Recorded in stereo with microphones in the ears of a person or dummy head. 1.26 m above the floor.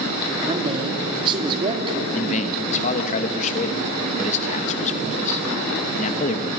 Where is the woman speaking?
30° right (ahead or behind), 3 m.